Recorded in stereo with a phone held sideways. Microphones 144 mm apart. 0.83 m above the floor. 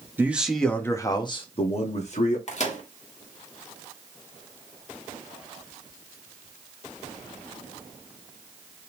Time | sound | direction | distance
0.2 | a man speaking | 15° right (ahead or behind) | 0.8 m
2.5 | a microwave | 50° left (ahead or behind) | 1.3 m